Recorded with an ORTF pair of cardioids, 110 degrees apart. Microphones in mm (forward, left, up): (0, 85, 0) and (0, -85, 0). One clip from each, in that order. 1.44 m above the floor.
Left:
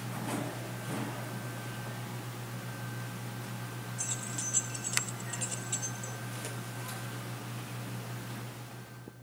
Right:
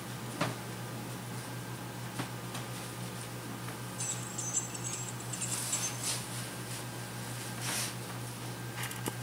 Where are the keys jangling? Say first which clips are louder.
Left 3 dB; 20° left, 2.5 m; by 6.2 s 5° right, 2.0 m.